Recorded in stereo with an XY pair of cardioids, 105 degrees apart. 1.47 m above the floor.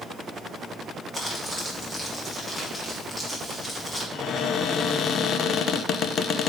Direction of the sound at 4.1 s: 65° left.